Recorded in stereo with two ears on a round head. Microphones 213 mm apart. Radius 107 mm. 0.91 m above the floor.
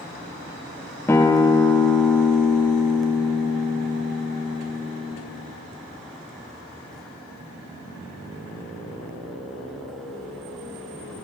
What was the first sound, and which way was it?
A guitar, 10° left (ahead or behind).